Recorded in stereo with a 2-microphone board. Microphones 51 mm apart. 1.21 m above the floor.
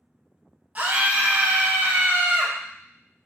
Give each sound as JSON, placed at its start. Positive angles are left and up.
{"t": 0.8, "sound": "a scream", "side_deg": -30, "distance_m": 1.3}